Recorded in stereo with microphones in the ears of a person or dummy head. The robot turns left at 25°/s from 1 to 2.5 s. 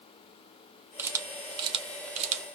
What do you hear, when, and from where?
1.0 s a camera shutter: 15° right (ahead or behind), 0.6 m; by 2.5 s 45° right (ahead or behind), 0.6 m